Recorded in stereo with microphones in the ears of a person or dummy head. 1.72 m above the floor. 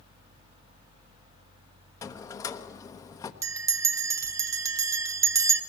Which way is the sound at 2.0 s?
20° left (ahead or behind).